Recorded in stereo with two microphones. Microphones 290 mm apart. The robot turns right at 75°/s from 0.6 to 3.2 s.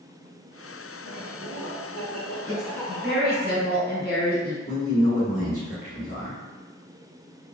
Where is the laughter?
125° right, 1.5 m; by 3.5 s 40° left, 1.5 m.